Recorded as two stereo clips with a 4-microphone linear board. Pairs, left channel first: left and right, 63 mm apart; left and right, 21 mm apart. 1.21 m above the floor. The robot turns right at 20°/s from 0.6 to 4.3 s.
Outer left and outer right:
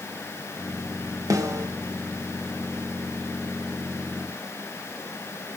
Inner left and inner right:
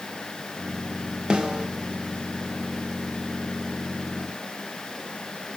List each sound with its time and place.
1.3 s a snare drum: 50° right (ahead or behind), 1.7 m; by 1.7 s 45° right (ahead or behind), 1.7 m